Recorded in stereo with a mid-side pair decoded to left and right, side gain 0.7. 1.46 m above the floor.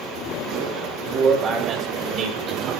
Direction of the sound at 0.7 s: 45° right.